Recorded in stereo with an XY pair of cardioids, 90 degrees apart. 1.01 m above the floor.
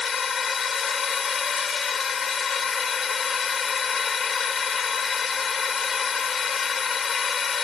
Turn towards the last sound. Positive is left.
turn(degrees=50)